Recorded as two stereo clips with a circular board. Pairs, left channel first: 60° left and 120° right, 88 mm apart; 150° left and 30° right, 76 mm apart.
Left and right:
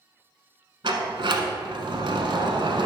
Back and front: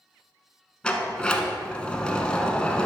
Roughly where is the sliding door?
Behind right.